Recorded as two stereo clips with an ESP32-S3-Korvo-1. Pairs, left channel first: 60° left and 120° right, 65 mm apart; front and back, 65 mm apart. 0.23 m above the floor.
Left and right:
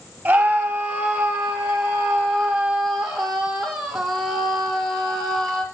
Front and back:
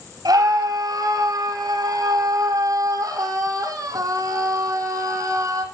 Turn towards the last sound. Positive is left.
turn(degrees=145)